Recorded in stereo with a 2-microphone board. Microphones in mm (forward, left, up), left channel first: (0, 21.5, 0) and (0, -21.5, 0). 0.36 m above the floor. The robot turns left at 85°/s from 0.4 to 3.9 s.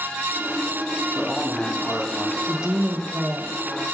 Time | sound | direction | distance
1.1 | a man speaking | 170° right | 2.5 m
2.5 | a woman speaking | 30° right | 1.0 m